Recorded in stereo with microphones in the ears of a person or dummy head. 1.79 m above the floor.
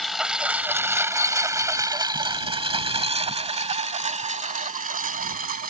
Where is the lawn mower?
Centre (ahead or behind); by 5.7 s 45° right (ahead or behind).